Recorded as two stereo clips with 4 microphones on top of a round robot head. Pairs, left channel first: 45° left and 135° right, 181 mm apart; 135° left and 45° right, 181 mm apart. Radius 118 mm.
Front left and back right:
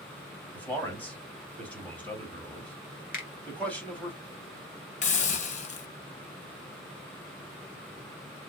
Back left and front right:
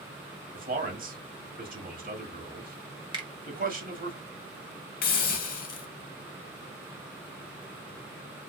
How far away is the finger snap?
About 1.2 m.